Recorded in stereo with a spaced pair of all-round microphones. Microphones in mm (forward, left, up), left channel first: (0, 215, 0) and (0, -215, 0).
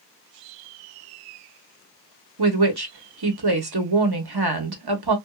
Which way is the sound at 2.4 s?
60° right (ahead or behind).